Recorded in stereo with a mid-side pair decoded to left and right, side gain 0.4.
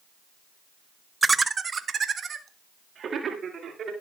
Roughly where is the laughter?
Ahead.